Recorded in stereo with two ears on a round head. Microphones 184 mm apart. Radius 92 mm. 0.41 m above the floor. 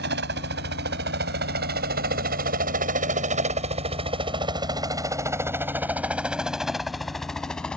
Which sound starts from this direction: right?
A helicopter, at 0.0 s.